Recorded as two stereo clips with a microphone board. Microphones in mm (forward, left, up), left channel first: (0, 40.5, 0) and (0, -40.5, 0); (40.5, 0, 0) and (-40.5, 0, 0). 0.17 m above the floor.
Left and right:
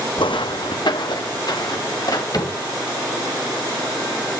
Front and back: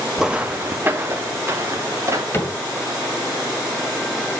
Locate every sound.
0.2 s footsteps: 95° left, 0.5 m; by 2.2 s 125° left, 2.5 m
2.3 s a cupboard door: 60° left, 2.5 m